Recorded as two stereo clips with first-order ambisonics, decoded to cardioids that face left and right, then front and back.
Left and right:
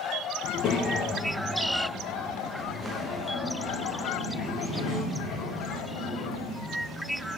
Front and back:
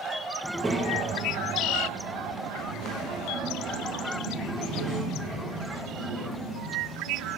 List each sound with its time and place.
0.4 s a child speaking: 80° left, 0.7 m; by 7.3 s straight behind, 5 m